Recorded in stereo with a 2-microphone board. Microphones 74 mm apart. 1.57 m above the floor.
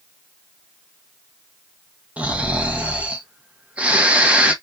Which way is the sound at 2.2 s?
20° right (ahead or behind).